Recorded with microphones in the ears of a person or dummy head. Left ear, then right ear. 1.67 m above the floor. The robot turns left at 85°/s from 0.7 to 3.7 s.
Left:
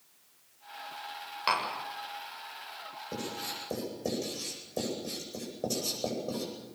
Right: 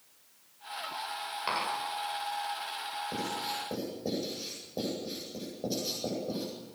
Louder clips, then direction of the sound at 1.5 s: Left 4 dB; 25° left (ahead or behind).